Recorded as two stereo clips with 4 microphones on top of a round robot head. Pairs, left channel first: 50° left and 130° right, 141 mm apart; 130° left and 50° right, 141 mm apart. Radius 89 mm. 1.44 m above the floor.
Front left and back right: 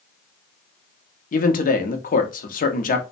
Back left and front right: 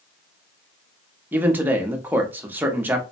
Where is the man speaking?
30° left, 0.7 m.